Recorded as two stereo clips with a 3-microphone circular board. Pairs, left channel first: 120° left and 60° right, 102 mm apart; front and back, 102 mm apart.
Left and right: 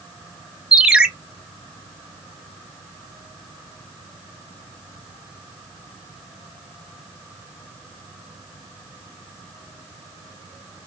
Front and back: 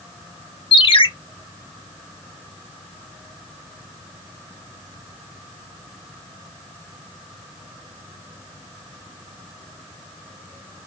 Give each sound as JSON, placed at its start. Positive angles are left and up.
{"t": 0.7, "sound": "a ringtone", "azimuth_deg": 20, "distance_m": 0.5}